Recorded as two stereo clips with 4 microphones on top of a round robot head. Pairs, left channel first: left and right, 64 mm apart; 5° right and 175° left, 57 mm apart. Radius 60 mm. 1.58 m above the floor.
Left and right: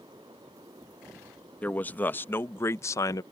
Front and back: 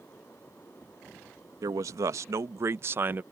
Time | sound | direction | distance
1.6 | a man speaking | 155° left | ?